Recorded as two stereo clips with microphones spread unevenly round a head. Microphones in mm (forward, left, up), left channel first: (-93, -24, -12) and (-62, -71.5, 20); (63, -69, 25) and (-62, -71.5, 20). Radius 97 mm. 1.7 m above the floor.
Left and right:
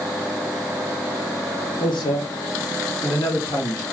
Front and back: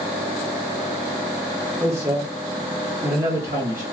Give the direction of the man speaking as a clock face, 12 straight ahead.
9 o'clock.